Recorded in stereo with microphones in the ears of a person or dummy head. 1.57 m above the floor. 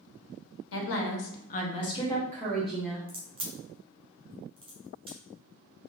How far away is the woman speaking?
About 0.9 m.